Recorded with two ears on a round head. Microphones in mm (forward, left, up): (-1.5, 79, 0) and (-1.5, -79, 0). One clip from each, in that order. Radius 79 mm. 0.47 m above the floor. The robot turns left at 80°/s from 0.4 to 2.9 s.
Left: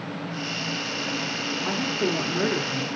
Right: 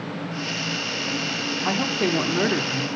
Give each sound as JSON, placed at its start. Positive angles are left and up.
{"t": 1.6, "sound": "a woman speaking", "side_deg": -25, "distance_m": 1.1}